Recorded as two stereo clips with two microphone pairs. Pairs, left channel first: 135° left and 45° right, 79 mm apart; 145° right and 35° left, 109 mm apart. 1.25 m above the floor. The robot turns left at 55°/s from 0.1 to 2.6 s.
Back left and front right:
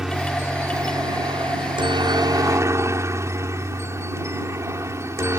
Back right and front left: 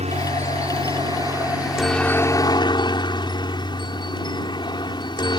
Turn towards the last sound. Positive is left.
turn(degrees=-95)